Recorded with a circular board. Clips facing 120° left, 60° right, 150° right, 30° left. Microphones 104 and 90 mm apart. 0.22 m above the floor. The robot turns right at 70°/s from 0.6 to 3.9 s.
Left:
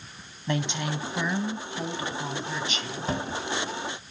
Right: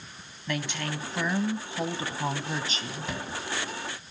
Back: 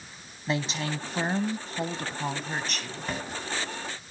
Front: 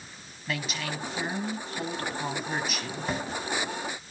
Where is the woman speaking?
165° left, 1.2 m; by 3.1 s 20° right, 1.2 m.